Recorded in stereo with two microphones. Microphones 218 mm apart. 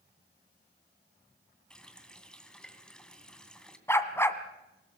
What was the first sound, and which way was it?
A running tap, 5° left (ahead or behind).